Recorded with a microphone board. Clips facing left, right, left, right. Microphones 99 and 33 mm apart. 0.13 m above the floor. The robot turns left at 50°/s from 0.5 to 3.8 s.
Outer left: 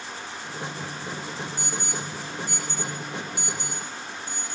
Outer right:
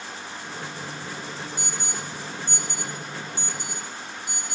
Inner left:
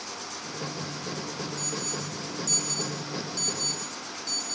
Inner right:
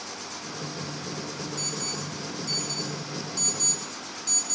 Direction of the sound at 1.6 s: 60° right (ahead or behind).